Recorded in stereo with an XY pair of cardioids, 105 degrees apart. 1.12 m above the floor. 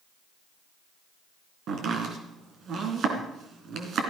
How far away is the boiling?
I don't hear boiling.